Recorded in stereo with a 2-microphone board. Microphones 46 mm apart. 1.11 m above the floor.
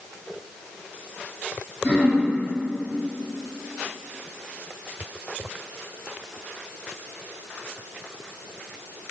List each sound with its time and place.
1.8 s throat clearing: 40° left (ahead or behind), 1.1 m